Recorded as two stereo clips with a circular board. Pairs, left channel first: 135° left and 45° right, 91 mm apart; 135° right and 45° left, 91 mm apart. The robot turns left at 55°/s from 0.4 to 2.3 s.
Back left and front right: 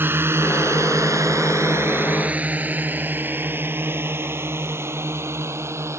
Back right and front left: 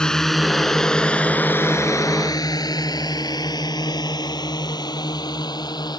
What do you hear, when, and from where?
0.0 s a drone: 65° right; by 6.0 s 100° right